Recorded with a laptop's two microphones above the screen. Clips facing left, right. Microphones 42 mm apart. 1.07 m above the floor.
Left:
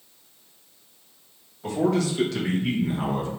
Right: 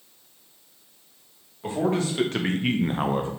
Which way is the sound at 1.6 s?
30° right (ahead or behind).